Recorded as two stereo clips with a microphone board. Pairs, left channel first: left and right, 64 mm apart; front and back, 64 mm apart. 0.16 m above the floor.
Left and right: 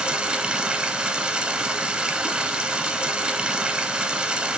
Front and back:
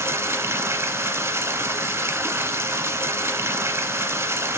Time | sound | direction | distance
0.0 | running water | 160° right | 0.9 m